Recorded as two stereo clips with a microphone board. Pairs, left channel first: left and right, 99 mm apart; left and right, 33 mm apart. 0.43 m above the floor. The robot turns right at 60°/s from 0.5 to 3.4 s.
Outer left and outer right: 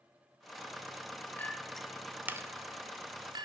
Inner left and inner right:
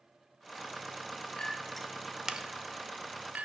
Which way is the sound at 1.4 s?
20° left (ahead or behind).